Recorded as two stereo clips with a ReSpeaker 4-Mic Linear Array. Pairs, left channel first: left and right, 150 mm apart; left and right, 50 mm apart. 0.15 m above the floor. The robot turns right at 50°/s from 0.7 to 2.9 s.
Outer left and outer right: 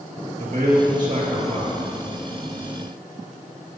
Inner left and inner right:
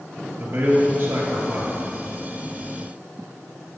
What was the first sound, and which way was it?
A man speaking, 110° right.